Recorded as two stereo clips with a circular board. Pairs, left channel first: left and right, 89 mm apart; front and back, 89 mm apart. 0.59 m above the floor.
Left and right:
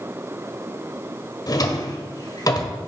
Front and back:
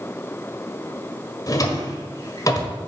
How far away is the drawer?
About 1.4 m.